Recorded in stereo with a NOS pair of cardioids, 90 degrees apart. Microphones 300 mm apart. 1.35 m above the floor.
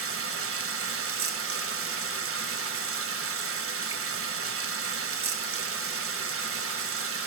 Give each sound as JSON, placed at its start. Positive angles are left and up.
{"t": 0.0, "sound": "running water", "azimuth_deg": -45, "distance_m": 1.7}